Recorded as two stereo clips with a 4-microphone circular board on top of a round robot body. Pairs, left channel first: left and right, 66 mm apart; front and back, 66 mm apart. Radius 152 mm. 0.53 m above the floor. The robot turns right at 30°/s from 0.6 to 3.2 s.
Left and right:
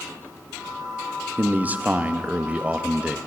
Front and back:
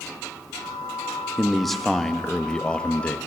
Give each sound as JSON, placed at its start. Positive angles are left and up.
{"t": 1.4, "sound": "a man speaking", "azimuth_deg": -95, "distance_m": 0.8}